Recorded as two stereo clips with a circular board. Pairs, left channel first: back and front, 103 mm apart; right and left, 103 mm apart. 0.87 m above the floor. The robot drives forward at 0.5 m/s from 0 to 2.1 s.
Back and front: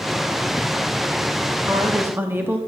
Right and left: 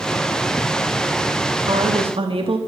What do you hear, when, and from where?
1.7 s a woman speaking: 60° left, 1.4 m; by 2.6 s 65° left, 1.3 m